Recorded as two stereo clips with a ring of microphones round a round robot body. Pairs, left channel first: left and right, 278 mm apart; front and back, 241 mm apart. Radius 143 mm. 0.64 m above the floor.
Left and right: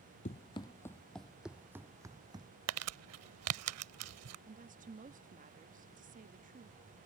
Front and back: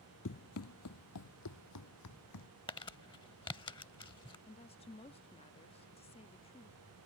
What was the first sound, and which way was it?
Running footsteps, 25° left.